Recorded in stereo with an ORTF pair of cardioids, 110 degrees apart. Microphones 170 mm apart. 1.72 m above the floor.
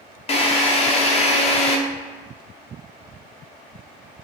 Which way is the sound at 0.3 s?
35° left.